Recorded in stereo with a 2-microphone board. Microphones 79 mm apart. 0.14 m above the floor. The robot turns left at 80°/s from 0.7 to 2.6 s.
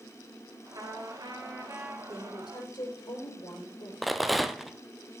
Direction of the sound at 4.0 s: Centre (ahead or behind).